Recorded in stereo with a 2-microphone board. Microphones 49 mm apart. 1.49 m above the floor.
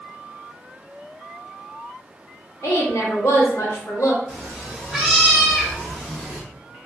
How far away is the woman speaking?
About 1.0 m.